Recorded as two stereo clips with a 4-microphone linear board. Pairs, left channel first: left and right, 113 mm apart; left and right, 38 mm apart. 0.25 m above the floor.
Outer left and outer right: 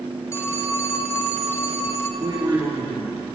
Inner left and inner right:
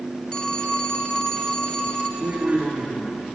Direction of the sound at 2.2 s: 40° right (ahead or behind).